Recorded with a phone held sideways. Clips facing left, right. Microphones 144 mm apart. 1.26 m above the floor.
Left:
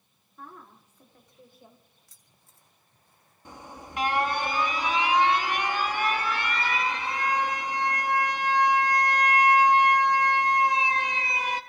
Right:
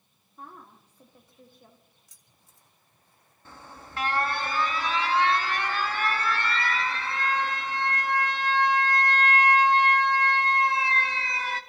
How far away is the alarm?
About 0.8 m.